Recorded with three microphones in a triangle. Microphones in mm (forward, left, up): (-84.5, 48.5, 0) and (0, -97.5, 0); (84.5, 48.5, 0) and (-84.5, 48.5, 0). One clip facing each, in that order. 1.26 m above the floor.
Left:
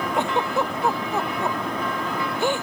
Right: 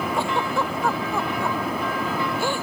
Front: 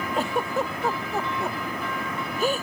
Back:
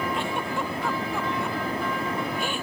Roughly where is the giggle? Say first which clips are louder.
Left 3 dB, front 3 dB; ahead left.